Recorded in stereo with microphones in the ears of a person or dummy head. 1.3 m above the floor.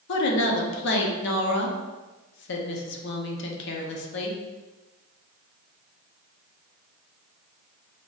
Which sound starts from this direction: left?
A woman speaking, at 0.1 s.